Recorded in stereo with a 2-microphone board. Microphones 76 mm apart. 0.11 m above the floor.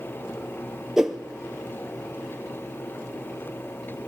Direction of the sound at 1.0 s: 5° right (ahead or behind).